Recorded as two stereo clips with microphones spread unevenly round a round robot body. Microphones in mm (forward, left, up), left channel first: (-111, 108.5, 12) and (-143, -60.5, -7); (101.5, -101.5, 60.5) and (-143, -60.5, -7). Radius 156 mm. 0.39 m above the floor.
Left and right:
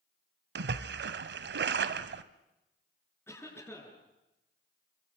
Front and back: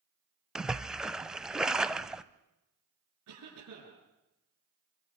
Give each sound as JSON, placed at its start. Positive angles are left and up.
{"t": 0.6, "sound": "a splash", "azimuth_deg": -105, "distance_m": 1.0}
{"t": 3.3, "sound": "a cough", "azimuth_deg": 155, "distance_m": 7.0}